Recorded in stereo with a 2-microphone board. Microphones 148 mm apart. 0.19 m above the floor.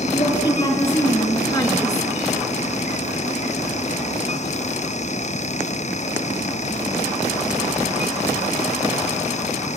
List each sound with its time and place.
0.1 s a woman speaking: 35° left (ahead or behind), 4.5 m; by 2.1 s 20° left (ahead or behind), 1.6 m